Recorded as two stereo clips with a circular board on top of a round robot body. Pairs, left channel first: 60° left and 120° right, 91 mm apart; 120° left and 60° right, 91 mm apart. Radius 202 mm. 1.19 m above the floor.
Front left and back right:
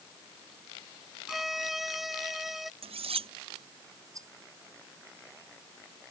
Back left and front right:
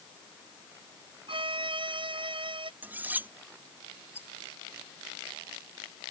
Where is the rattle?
175° right.